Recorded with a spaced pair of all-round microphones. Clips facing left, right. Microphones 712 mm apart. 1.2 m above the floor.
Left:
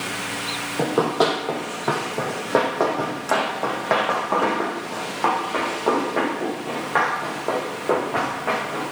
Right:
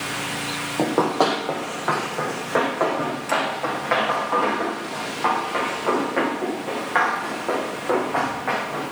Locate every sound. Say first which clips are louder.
0.8 s running footsteps: even; 40° left (ahead or behind), 2.5 m; by 8.8 s 60° left (ahead or behind), 7 m